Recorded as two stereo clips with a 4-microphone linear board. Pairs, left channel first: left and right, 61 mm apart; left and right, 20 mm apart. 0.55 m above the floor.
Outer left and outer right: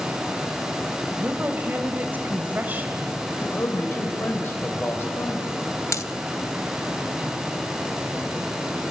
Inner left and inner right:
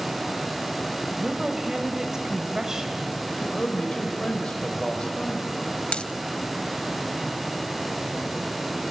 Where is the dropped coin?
60° left (ahead or behind), 0.6 m.